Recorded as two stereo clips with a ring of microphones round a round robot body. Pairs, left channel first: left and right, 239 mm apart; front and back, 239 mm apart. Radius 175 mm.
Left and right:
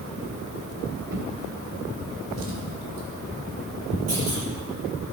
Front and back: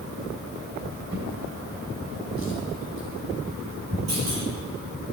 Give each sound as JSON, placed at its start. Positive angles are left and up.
{"t": 1.1, "sound": "a drawer", "azimuth_deg": -125, "distance_m": 2.5}
{"t": 4.1, "sound": "a clunk", "azimuth_deg": -135, "distance_m": 7.5}